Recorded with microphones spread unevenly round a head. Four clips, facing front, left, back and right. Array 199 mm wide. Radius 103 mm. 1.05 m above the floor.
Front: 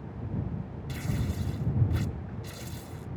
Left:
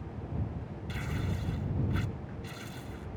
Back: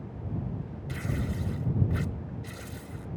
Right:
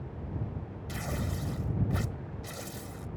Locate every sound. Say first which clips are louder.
0.9 s tearing paper: right 1 dB, back 1 dB; 105° right